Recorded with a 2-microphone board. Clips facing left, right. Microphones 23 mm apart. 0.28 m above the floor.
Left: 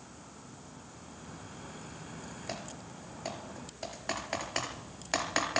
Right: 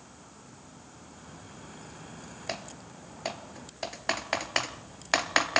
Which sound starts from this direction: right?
Typing on a keyboard, at 2.5 s.